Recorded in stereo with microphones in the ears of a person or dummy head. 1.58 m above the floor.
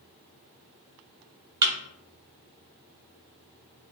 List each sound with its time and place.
1.6 s a thud: 20° right (ahead or behind), 1.8 m